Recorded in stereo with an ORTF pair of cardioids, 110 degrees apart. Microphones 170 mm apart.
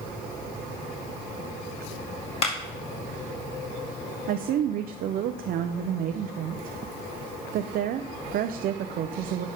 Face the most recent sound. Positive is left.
turn(degrees=-60)